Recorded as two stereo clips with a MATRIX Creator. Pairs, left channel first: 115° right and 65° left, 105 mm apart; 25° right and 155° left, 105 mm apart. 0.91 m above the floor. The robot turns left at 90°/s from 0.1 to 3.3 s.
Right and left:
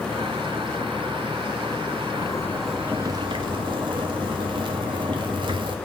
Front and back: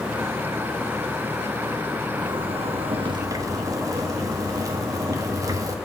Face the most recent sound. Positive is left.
turn(degrees=105)